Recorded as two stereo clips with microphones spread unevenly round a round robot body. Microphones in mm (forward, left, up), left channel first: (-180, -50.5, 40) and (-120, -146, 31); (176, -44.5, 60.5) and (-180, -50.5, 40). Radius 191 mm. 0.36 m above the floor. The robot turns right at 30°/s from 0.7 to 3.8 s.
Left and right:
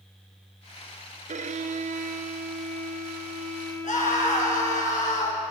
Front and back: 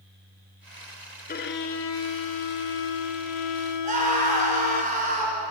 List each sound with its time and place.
1.3 s a violin: 65° right, 1.1 m; by 4.8 s 10° left, 1.1 m
3.8 s a scream: 110° left, 5 m